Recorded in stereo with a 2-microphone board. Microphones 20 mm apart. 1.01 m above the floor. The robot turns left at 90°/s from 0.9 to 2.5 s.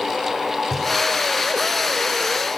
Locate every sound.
0.7 s knocking: 5° left (ahead or behind), 4 m